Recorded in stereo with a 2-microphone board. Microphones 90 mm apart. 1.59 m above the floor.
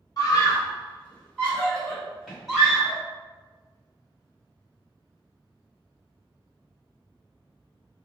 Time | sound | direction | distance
0.2 | a scream | 45° left (ahead or behind) | 1.0 m